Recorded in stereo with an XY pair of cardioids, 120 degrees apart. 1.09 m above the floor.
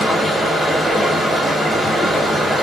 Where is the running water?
10° right, 1.2 m.